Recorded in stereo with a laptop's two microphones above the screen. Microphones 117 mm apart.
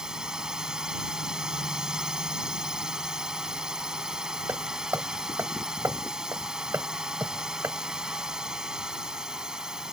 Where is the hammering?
20° right (ahead or behind).